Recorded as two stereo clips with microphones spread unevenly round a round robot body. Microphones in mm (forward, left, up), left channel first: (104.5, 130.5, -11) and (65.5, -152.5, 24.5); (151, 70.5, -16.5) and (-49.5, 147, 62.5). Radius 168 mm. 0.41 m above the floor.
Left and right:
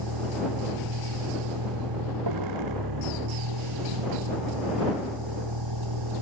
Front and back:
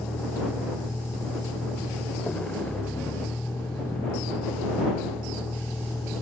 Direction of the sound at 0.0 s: 110° right.